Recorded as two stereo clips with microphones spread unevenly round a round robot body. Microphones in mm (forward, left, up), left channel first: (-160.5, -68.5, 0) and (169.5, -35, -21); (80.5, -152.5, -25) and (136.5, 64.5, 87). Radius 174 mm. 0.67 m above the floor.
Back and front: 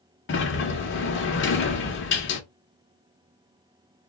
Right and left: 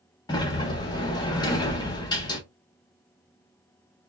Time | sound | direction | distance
0.3 | a sliding door | 130° right | 0.7 m